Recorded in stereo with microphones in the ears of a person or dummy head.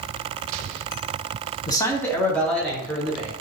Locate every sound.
1.7 s a man speaking: 25° left (ahead or behind), 0.7 m; by 3.3 s centre (ahead or behind), 1.8 m